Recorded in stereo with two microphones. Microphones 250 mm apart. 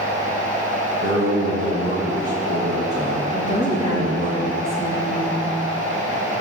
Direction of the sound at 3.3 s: 20° left (ahead or behind).